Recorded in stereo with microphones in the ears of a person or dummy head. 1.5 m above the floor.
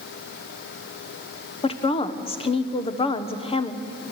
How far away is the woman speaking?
About 1.2 m.